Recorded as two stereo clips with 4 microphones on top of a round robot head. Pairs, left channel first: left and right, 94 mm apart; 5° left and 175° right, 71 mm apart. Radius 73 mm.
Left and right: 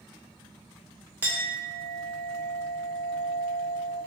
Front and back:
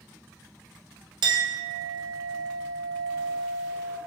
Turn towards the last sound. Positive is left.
turn(degrees=-165)